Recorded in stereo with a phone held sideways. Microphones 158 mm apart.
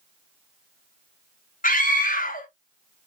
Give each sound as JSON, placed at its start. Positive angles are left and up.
{"t": 1.6, "sound": "a scream", "side_deg": 60, "distance_m": 0.7}